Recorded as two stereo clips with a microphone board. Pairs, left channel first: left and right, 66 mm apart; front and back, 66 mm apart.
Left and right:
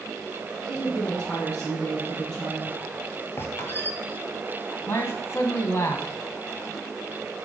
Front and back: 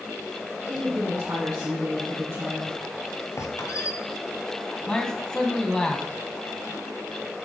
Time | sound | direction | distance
0.7 | a woman speaking | 160° left | 2.5 m
3.4 | a squeak | 30° left | 1.0 m
4.9 | a man speaking | 70° left | 1.5 m